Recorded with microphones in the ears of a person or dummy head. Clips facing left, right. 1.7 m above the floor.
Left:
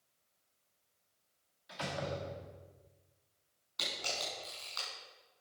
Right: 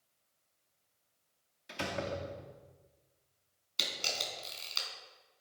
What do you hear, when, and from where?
1.7 s a door slam: 40° right (ahead or behind), 2 m
3.8 s a camera shutter: 40° right (ahead or behind), 5 m